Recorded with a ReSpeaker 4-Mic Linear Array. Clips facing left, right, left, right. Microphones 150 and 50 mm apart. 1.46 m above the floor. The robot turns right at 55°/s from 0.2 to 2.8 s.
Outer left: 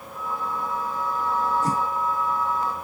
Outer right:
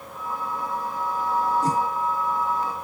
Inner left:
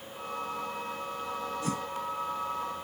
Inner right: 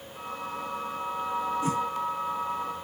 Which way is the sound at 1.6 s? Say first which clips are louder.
Outer right 2 dB, inner right 4 dB; 35° right (ahead or behind).